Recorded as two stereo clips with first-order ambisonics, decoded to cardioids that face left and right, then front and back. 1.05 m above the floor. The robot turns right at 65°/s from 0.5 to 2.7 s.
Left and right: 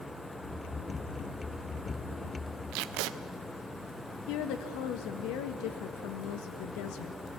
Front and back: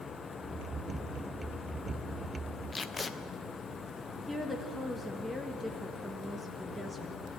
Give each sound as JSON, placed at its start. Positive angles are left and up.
{"t": 2.7, "sound": "tape being pulled", "azimuth_deg": -80, "distance_m": 0.6}
{"t": 4.3, "sound": "a woman speaking", "azimuth_deg": 90, "distance_m": 1.5}